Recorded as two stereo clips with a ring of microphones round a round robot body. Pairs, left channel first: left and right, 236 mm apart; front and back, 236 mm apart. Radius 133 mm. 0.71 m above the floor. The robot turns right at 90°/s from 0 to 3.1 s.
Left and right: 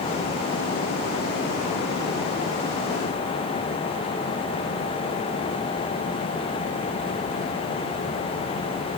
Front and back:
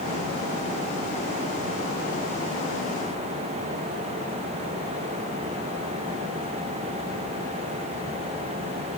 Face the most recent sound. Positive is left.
No sound to turn to.